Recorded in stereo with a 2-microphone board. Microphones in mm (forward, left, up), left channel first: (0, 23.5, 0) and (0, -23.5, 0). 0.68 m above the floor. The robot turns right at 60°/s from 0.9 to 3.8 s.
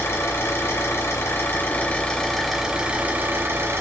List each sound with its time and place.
0.0 s an engine running: 90° left, 1.0 m; by 3.8 s 100° right, 1.0 m